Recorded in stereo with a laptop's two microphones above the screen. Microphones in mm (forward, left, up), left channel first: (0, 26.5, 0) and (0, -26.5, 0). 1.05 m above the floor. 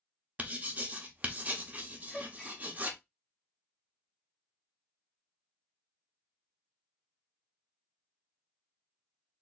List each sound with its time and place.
0.4 s writing: 30° right (ahead or behind), 0.6 m
2.1 s a gasp: 15° left (ahead or behind), 0.9 m